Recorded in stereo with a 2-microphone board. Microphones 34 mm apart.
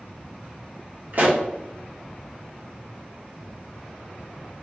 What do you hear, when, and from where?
1.1 s a pop: 55° right (ahead or behind), 0.9 m